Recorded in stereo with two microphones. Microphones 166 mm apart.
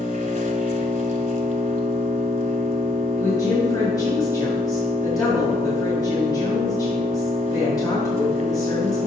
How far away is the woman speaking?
About 1.7 m.